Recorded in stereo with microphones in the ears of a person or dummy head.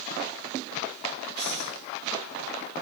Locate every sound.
1.4 s breathing: 80° left, 8 m